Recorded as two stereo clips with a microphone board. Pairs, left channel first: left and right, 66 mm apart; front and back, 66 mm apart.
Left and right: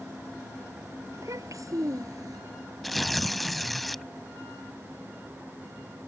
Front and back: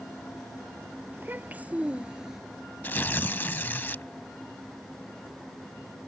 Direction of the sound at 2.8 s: 5° left.